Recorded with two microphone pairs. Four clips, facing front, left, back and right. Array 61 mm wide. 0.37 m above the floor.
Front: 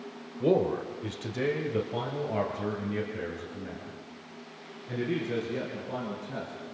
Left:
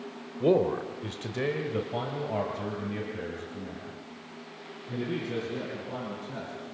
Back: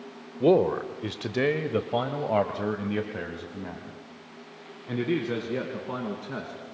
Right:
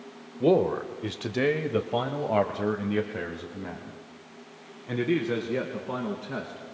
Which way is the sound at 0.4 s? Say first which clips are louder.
Right 2 dB, back 4 dB; straight behind.